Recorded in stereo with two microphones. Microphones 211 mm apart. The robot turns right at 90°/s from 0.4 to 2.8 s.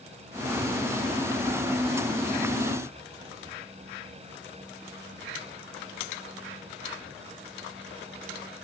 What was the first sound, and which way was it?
Only background noise.